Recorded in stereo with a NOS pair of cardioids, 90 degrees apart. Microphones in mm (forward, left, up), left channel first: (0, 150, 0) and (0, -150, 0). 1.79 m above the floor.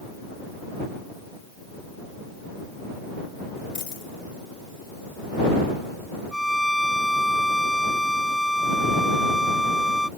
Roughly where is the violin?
Ahead.